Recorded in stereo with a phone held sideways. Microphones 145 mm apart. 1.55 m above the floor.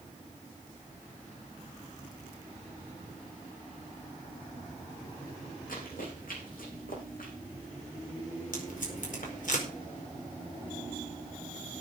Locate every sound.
5.7 s running footsteps: 80° left, 7.5 m; by 7.3 s 75° left (ahead or behind), 6.5 m
8.5 s tape being pulled: 65° left (ahead or behind), 4.5 m